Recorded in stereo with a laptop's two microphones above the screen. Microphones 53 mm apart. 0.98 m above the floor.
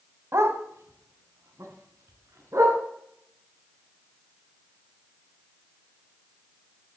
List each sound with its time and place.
0.3 s a dog barking: 65° right (ahead or behind), 1.5 m; by 2.8 s 75° right (ahead or behind), 3.5 m